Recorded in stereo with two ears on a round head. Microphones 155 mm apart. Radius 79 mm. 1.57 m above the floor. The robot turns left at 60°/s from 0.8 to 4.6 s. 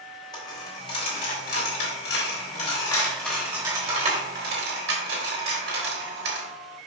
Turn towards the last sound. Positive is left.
turn(degrees=-65)  # may be behind; listen again after turning